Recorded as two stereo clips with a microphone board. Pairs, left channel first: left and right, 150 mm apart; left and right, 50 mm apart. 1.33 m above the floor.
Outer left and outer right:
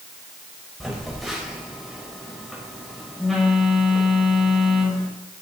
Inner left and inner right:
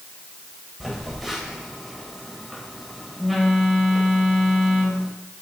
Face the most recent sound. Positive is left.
turn(degrees=0)  # may be behind; listen again after turning